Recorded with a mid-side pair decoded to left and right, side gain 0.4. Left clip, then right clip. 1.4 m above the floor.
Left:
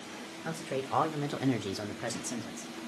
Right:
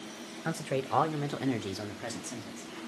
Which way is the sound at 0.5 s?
40° right.